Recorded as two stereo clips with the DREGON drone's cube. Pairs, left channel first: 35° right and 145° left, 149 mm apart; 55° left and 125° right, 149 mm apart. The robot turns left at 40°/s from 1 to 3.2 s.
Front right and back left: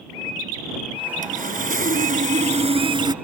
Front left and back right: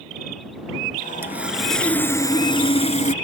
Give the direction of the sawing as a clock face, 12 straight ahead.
7 o'clock.